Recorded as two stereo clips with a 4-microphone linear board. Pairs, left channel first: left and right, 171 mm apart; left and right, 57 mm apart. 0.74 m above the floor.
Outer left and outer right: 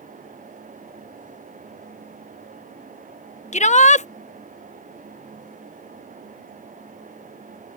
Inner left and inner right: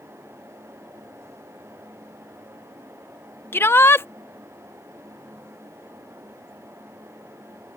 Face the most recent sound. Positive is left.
turn(degrees=45)  # may be behind; listen again after turning